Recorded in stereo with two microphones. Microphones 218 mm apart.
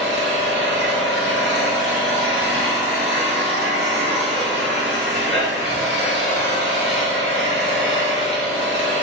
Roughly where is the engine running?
Right.